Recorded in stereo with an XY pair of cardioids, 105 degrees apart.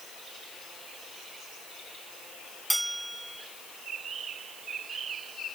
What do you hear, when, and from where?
2.7 s a bell: 10° right